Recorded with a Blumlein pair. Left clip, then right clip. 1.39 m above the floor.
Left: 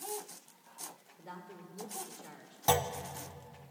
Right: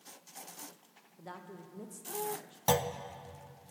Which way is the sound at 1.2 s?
20° right.